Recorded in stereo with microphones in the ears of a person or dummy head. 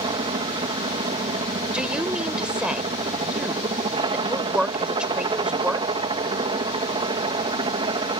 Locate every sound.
0.0 s a helicopter: 25° right (ahead or behind)
1.7 s a woman speaking: 5° right (ahead or behind)